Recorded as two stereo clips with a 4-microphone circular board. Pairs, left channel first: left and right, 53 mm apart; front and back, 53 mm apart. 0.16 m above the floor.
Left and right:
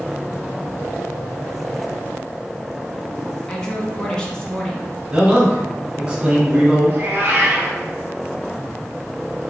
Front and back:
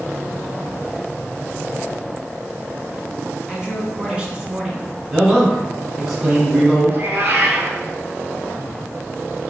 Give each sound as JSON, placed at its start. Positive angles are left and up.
{"t": 3.5, "sound": "a woman speaking", "azimuth_deg": 145, "distance_m": 1.4}
{"t": 5.1, "sound": "a man speaking", "azimuth_deg": -105, "distance_m": 1.8}
{"t": 6.9, "sound": "a cat meowing", "azimuth_deg": -140, "distance_m": 1.1}